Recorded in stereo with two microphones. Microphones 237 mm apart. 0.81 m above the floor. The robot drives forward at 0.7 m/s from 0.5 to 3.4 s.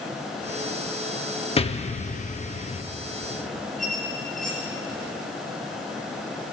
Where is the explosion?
25° left (ahead or behind), 0.8 m.